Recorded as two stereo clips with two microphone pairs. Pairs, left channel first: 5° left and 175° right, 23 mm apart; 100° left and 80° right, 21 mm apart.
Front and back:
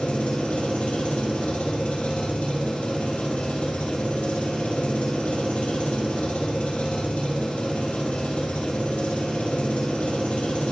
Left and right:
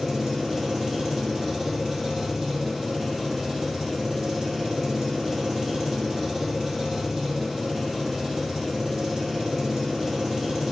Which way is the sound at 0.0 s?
10° left.